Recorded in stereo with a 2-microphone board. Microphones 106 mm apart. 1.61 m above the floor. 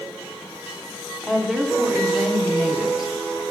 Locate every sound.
1.2 s a woman speaking: 5° right (ahead or behind), 0.8 m